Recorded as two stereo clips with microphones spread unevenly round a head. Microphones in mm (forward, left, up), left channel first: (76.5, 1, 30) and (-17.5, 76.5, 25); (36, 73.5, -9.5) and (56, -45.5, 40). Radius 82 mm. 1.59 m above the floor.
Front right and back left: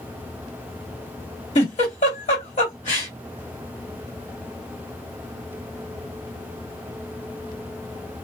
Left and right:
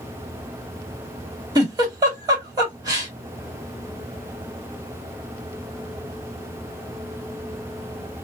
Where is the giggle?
60° right, 2 m.